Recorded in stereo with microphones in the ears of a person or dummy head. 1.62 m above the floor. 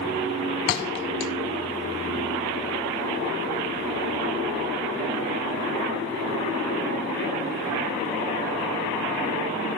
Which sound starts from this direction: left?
A thud, at 0.7 s.